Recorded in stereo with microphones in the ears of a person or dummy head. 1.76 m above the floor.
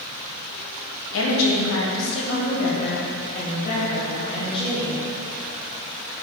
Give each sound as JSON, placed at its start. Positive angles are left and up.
{"t": 1.1, "sound": "a woman speaking", "side_deg": 80, "distance_m": 1.7}